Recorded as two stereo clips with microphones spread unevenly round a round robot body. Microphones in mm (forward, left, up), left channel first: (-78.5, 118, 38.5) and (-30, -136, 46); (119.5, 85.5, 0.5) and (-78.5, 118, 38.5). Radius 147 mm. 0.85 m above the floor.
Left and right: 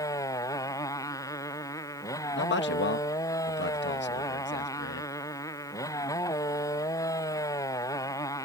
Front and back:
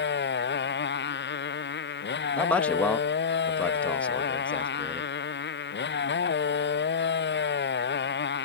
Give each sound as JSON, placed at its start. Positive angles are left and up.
{"t": 0.0, "sound": "a motorcycle", "azimuth_deg": 20}
{"t": 2.4, "sound": "a man speaking", "azimuth_deg": 65}